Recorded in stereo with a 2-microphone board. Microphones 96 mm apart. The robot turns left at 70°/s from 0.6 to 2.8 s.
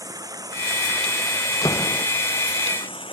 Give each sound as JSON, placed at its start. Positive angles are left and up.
{"t": 0.0, "sound": "running water", "azimuth_deg": -140}
{"t": 1.6, "sound": "a door slam", "azimuth_deg": 40}